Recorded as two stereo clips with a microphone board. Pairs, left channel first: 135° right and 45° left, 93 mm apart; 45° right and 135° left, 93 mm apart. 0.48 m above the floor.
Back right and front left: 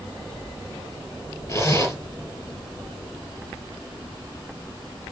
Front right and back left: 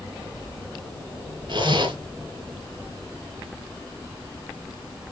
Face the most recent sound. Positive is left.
turn(degrees=165)